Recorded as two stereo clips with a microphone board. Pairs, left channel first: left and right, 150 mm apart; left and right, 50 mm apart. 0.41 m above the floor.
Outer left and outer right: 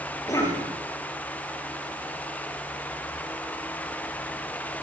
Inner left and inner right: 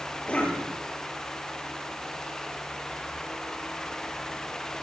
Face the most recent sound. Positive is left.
turn(degrees=25)  # may be behind; listen again after turning